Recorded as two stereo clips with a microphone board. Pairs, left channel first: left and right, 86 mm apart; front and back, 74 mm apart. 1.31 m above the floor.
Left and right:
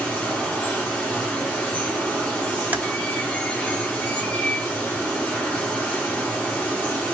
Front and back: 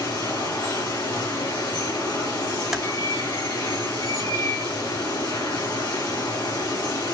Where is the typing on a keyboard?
100° right, 0.9 m.